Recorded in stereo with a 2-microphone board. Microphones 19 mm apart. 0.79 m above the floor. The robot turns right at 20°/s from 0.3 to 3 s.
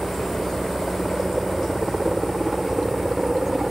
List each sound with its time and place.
0.0 s a helicopter: 30° left (ahead or behind); by 3.7 s 25° right (ahead or behind)